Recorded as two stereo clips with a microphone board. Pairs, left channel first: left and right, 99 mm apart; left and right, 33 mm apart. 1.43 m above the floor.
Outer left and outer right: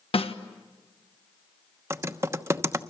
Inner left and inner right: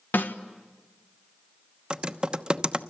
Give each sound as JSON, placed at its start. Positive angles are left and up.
{"t": 0.1, "sound": "a snare drum", "side_deg": 75, "distance_m": 1.3}
{"t": 1.9, "sound": "typing on a keyboard", "side_deg": -25, "distance_m": 1.0}